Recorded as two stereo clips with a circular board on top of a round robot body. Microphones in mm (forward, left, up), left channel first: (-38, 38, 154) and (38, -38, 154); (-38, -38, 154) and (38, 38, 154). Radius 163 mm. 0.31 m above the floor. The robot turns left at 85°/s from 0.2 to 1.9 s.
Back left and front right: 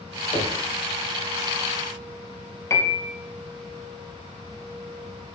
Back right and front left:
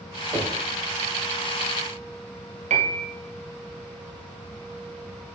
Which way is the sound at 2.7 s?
70° left.